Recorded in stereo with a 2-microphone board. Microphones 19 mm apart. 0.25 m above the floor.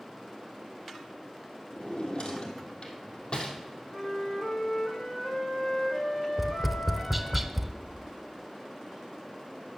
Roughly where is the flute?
Left.